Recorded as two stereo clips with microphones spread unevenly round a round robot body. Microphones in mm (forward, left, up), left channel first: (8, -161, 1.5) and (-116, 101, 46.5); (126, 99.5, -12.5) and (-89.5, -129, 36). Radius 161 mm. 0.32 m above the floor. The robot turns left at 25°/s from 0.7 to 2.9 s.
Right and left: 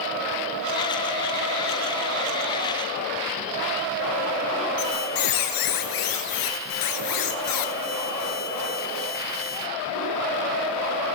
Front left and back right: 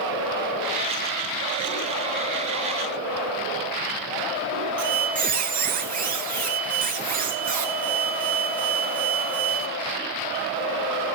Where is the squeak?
70° right, 1.4 m.